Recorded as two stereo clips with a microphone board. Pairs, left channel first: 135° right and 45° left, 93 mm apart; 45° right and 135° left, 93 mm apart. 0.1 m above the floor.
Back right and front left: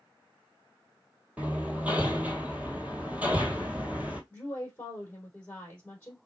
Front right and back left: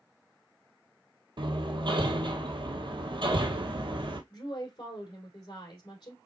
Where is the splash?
No splash in this recording.